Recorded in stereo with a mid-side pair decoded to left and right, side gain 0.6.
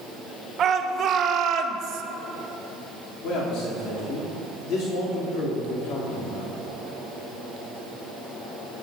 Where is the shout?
45° right, 1.8 m; by 2.0 s 65° right, 1.2 m.